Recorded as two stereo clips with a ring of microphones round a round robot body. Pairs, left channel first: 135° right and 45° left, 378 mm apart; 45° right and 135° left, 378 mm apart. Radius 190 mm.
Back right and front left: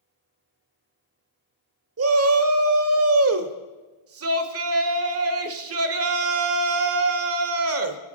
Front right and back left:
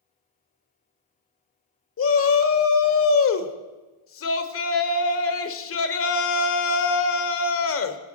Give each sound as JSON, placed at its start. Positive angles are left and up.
{"t": 2.0, "sound": "a shout", "azimuth_deg": 0, "distance_m": 1.3}